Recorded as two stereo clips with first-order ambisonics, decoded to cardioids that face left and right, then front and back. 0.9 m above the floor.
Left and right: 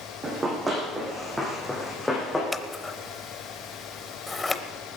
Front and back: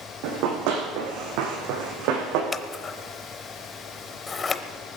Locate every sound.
0.2 s running footsteps: 160° right, 3 m; by 2.4 s 175° left, 3.5 m
2.5 s scissors: 30° left, 0.7 m